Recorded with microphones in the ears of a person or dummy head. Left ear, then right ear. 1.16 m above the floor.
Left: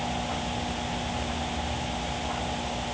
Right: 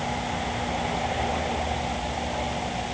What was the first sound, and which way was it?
Only background noise.